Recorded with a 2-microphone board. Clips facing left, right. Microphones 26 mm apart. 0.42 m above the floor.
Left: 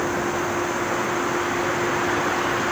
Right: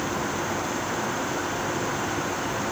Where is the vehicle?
85° left.